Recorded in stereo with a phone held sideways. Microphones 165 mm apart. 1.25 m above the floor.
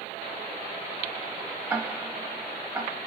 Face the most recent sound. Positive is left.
turn(degrees=-10)  # may be behind; listen again after turning